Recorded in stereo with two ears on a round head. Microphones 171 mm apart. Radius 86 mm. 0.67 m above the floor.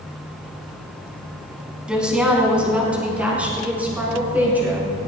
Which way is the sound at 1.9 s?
5° right (ahead or behind).